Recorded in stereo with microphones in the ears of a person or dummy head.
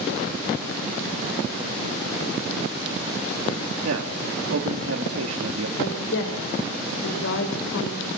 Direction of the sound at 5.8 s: 70° left (ahead or behind).